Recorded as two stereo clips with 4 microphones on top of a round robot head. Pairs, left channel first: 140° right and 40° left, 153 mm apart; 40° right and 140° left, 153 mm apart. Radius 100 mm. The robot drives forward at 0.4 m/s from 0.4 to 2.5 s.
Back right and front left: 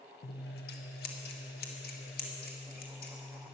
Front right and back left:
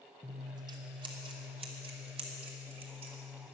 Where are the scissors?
155° right, 1.0 m; by 3.5 s 165° right, 1.8 m.